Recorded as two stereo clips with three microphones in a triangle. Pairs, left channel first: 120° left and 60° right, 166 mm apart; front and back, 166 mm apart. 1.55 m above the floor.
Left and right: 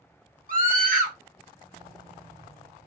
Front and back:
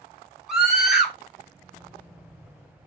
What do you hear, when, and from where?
0.5 s a scream: 95° right, 1.8 m